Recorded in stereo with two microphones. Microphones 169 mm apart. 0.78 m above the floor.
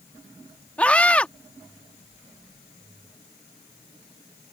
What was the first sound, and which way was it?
A scream, 10° left (ahead or behind).